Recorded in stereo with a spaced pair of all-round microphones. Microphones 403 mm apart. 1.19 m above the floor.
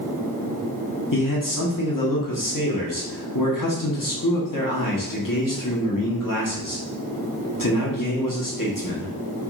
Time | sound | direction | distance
1.1 | a man speaking | 55° left (ahead or behind) | 1.0 m